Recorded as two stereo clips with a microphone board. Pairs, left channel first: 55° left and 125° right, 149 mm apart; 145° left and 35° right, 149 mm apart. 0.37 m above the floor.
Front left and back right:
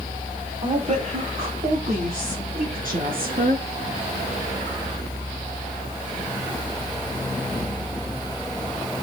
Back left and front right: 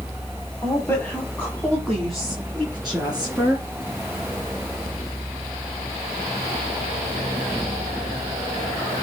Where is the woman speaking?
150° right, 1.7 m; by 3.6 s 120° right, 4.5 m.